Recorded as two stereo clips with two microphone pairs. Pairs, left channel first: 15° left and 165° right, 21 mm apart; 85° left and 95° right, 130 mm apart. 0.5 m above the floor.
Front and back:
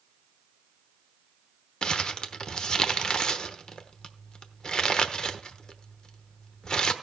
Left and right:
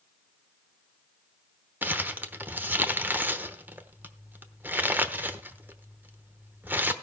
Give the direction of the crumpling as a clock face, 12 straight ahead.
1 o'clock.